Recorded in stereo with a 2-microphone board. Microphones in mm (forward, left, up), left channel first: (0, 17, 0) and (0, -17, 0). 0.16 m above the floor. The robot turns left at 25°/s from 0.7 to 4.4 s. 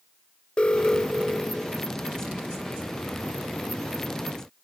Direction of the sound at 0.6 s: 35° left (ahead or behind).